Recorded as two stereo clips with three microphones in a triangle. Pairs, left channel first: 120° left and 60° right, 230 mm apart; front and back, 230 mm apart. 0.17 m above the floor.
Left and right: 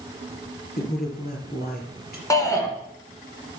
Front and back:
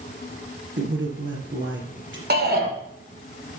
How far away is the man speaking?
About 3 m.